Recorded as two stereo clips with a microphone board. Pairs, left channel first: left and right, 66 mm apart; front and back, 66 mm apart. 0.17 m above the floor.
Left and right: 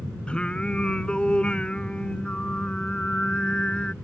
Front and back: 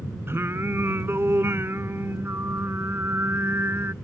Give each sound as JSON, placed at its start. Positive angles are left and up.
{"t": 0.3, "sound": "singing", "azimuth_deg": 155}